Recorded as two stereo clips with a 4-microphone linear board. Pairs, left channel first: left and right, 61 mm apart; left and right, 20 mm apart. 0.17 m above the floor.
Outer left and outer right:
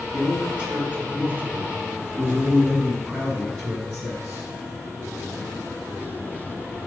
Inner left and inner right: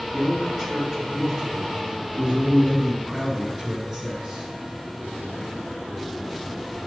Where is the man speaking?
15° right (ahead or behind), 2.5 m; by 4.5 s 40° right (ahead or behind), 2.5 m.